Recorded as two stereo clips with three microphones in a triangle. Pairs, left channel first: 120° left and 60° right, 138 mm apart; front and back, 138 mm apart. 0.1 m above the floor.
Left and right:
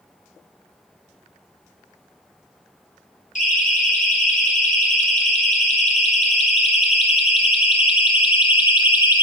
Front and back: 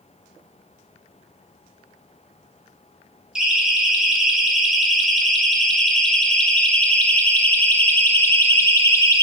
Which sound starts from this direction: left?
A siren, at 3.4 s.